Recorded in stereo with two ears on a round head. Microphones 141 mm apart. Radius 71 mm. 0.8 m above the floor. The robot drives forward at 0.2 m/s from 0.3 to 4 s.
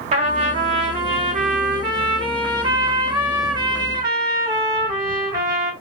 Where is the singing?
No singing in this recording.